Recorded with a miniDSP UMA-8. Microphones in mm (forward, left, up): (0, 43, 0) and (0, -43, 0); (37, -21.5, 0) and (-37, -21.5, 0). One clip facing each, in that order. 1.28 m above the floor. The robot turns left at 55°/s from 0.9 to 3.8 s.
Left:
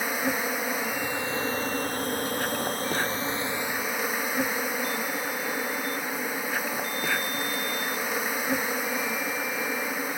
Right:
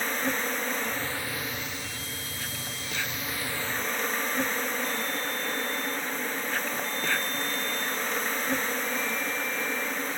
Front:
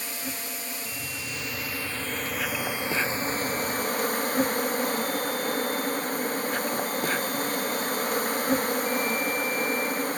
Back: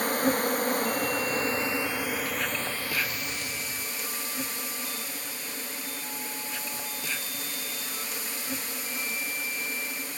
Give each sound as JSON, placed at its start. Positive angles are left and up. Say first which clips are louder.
{"t": 0.0, "sound": "an insect", "louder": "left 2 dB, back 11 dB", "azimuth_deg": 170}